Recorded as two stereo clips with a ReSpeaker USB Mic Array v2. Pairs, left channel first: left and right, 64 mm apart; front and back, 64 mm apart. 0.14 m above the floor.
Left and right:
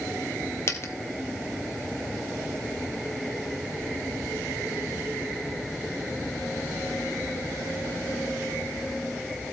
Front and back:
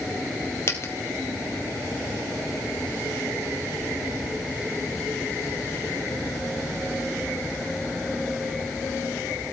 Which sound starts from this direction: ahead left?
A dropped coin, at 0.7 s.